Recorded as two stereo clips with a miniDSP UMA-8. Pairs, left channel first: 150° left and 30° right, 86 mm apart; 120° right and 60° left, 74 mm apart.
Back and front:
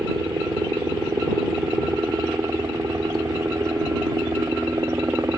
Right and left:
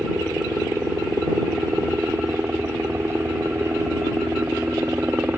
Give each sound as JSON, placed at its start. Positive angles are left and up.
{"t": 0.0, "sound": "a helicopter", "azimuth_deg": 10}